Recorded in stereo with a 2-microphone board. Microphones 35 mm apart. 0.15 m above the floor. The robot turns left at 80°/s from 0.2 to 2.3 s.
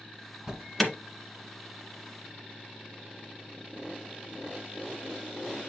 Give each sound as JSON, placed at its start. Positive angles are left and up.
{"t": 0.5, "sound": "an alarm", "side_deg": -10, "distance_m": 1.8}